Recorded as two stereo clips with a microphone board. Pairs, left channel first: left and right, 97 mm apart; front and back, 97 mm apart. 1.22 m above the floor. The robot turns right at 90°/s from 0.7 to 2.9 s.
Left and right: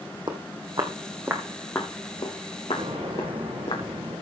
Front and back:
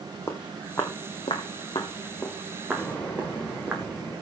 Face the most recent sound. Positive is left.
turn(degrees=-75)